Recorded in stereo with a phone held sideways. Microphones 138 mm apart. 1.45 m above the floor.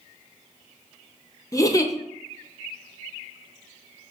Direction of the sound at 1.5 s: 25° left (ahead or behind).